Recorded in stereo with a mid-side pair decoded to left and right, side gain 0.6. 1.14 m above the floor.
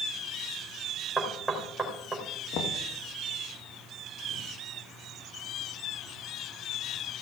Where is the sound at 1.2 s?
15° right, 3 m.